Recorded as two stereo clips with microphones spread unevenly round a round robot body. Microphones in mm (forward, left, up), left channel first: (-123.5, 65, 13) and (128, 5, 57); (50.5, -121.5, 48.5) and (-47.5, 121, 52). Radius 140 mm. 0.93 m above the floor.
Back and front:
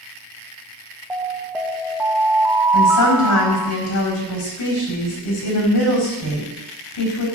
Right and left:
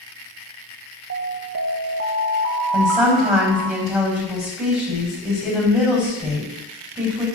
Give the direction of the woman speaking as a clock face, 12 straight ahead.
5 o'clock.